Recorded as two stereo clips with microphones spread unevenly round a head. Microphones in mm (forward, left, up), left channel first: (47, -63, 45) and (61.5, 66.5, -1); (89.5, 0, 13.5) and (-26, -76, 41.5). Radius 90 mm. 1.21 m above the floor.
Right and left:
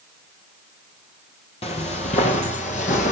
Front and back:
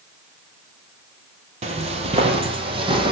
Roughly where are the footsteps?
Behind right.